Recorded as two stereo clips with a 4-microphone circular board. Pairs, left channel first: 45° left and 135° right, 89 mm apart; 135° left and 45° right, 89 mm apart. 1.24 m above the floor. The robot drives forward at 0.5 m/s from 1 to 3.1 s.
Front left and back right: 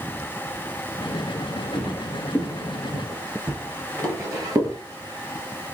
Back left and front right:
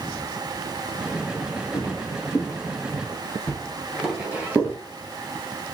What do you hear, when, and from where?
1.7 s footsteps: 110° left, 1.5 m; by 4.8 s 100° right, 1.6 m